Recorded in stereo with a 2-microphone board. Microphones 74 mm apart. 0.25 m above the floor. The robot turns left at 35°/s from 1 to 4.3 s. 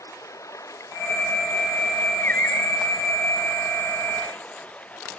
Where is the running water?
135° left; by 5.2 s 20° left.